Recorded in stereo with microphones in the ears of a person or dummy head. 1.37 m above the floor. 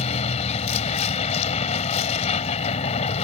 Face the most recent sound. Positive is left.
turn(degrees=40)  # may be behind; listen again after turning